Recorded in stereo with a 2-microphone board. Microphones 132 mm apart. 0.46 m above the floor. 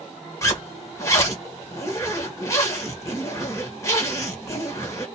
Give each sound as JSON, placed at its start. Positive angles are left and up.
{"t": 0.4, "sound": "a zipper", "side_deg": 25, "distance_m": 2.0}